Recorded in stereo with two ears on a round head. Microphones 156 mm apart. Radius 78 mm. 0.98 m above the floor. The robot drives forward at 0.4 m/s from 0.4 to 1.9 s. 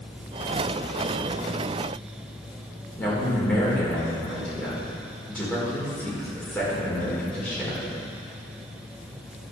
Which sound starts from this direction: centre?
A man speaking, at 3.0 s.